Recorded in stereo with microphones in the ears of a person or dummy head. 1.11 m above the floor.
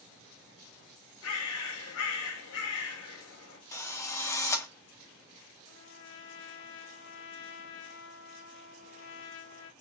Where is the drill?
20° left (ahead or behind), 0.6 m.